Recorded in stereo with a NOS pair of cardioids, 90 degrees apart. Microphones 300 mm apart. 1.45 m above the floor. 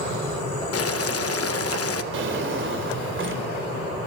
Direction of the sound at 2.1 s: 45° right.